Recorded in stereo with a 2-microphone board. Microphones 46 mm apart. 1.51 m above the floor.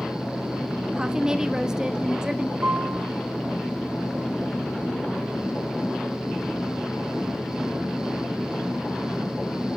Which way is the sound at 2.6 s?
45° right (ahead or behind).